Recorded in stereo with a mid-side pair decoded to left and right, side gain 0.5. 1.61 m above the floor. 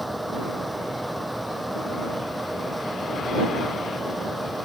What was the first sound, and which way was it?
A fan, straight ahead.